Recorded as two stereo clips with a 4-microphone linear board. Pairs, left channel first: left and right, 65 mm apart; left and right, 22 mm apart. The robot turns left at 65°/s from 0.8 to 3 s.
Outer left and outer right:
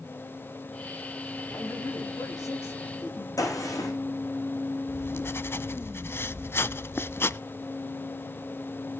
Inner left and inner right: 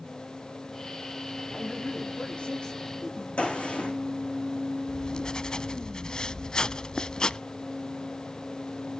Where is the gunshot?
60° left (ahead or behind), 9 m.